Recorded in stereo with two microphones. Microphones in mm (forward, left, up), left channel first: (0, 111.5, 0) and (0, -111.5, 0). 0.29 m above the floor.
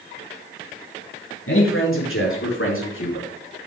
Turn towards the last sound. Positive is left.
turn(degrees=65)  # may be behind; listen again after turning